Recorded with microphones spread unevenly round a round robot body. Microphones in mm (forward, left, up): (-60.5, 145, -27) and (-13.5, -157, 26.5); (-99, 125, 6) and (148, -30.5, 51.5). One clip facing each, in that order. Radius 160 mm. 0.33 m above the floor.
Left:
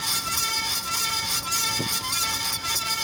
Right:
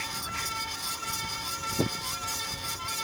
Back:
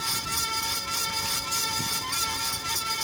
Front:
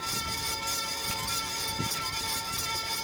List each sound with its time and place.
Only background noise.